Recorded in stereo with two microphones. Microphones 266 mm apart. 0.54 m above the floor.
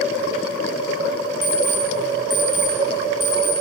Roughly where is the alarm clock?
Right.